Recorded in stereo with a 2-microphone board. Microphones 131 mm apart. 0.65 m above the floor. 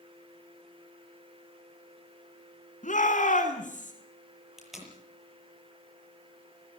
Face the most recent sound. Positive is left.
turn(degrees=-5)  # may be behind; listen again after turning